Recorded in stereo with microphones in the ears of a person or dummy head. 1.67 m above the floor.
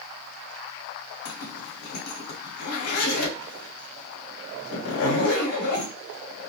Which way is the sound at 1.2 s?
75° left (ahead or behind).